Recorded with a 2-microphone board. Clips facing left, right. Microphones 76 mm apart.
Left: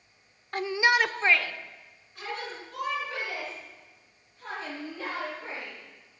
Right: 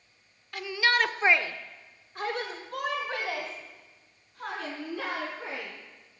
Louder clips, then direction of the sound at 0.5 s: Left 2 dB; 40° left (ahead or behind).